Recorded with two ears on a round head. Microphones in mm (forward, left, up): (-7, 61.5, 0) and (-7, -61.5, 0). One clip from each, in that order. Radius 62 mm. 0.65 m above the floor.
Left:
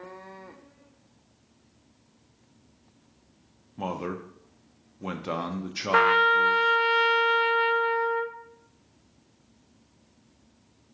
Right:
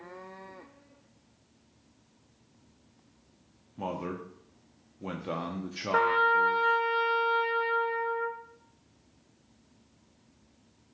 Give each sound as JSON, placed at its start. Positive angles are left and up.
{"t": 3.8, "sound": "a man speaking", "side_deg": 20, "distance_m": 0.7}
{"t": 5.9, "sound": "a trumpet", "side_deg": 65, "distance_m": 0.6}